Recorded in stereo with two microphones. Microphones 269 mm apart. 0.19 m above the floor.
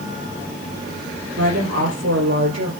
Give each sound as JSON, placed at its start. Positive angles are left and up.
{"t": 1.4, "sound": "a woman speaking", "side_deg": -80, "distance_m": 5.5}